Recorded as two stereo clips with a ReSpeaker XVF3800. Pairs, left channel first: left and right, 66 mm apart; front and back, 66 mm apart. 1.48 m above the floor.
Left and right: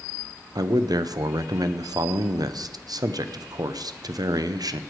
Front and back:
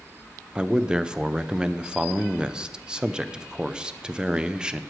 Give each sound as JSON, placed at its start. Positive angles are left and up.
{"t": 0.6, "sound": "a man speaking", "azimuth_deg": -100, "distance_m": 0.6}